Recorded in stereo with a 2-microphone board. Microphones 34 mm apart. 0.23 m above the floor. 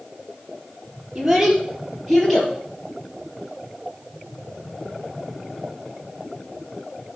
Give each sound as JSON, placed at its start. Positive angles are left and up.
{"t": 1.1, "sound": "a child speaking", "side_deg": -10, "distance_m": 4.0}